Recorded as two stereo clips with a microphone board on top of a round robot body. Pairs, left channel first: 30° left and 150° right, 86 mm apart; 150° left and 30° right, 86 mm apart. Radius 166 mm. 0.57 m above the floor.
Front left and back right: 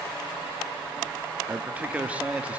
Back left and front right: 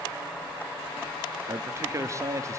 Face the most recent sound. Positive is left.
turn(degrees=-80)